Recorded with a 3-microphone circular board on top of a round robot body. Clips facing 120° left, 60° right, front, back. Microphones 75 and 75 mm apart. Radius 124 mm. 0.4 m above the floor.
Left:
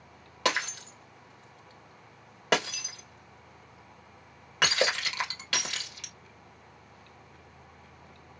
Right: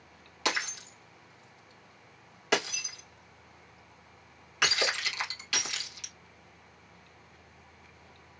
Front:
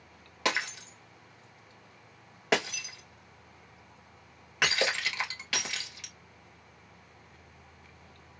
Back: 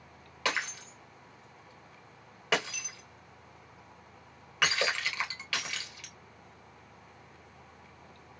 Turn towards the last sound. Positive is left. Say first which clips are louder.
# left 3 dB, front 2 dB
turn(degrees=75)